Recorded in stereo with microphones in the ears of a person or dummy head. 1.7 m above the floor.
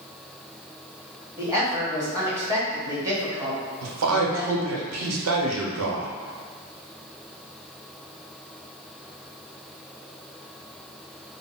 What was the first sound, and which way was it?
A woman speaking, 15° right (ahead or behind).